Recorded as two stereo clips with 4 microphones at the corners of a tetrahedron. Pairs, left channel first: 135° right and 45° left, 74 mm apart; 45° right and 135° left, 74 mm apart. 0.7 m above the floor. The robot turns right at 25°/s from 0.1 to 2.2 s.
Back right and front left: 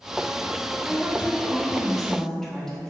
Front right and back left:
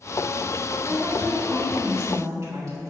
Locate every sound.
0.8 s a woman speaking: 110° left, 1.4 m; by 2.9 s 145° left, 1.4 m